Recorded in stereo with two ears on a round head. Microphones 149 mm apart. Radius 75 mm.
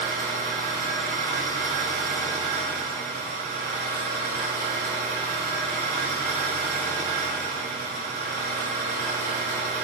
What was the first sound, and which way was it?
An engine running, 50° right (ahead or behind).